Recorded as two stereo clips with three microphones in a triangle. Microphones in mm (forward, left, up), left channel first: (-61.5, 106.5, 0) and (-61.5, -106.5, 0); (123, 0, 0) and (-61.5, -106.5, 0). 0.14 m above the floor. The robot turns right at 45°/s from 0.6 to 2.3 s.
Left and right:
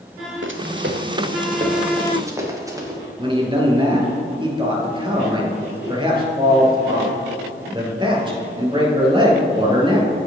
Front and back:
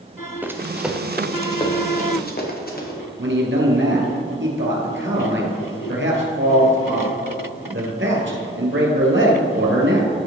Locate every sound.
0.4 s running footsteps: 65° right, 1.1 m; by 3.0 s 15° right, 2.5 m
3.2 s a man speaking: 155° right, 2.5 m